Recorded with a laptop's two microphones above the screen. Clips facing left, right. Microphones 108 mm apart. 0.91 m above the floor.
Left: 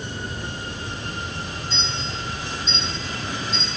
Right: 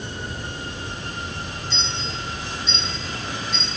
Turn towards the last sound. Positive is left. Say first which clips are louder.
# even
turn(degrees=-70)  # may be behind; listen again after turning